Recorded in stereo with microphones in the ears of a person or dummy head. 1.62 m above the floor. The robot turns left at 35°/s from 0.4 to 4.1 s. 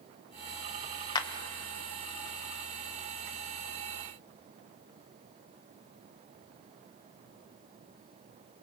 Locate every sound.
1.1 s a clap: 20° left (ahead or behind), 0.8 m